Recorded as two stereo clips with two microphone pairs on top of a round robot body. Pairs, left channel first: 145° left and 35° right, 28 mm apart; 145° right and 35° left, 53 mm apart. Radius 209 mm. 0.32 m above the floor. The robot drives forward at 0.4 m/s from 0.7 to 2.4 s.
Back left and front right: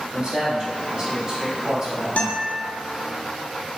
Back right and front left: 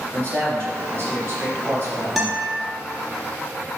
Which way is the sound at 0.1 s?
10° left.